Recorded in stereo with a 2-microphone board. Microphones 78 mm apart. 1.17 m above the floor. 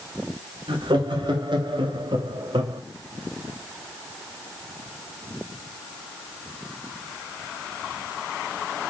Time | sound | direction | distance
0.7 | laughter | 85° right | 3 m